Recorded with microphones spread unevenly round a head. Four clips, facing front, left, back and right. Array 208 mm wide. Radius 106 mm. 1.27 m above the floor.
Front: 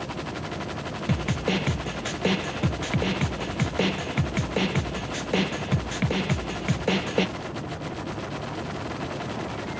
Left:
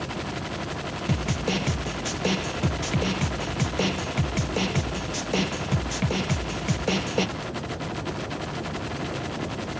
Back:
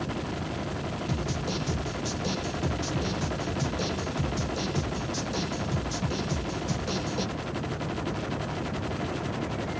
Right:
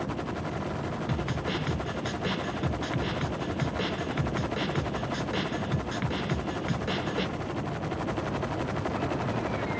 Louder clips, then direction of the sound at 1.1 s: Left 8 dB, front 8 dB; 25° left.